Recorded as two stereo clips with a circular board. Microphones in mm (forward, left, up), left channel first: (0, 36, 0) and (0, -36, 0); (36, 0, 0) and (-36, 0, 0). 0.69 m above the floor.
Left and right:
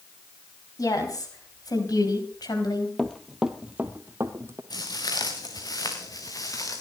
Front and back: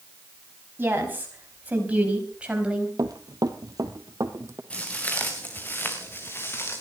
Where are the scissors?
I don't hear scissors.